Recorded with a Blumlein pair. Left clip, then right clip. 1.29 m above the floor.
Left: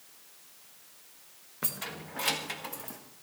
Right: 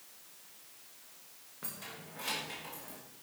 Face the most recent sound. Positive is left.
turn(degrees=65)